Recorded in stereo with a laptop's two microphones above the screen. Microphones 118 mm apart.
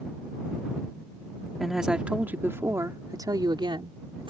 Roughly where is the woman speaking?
Centre.